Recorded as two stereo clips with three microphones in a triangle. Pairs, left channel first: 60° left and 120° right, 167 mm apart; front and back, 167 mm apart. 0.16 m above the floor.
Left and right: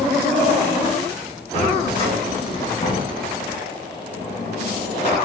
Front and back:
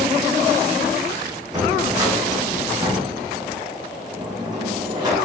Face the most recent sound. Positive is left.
turn(degrees=115)